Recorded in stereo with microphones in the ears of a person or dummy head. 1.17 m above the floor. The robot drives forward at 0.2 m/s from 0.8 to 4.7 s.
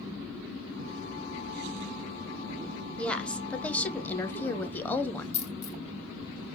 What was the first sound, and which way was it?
A woman speaking, 5° left (ahead or behind).